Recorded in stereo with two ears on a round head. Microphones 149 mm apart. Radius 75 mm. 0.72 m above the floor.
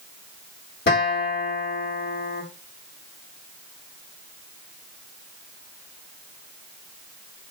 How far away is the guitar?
About 1.3 m.